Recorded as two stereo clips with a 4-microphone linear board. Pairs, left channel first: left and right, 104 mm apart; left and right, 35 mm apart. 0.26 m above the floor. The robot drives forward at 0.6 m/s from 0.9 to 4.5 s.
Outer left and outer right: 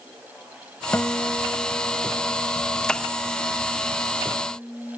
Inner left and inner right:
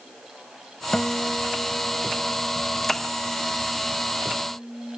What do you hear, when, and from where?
0.9 s a guitar: 20° left (ahead or behind); by 5.0 s 15° left (ahead or behind)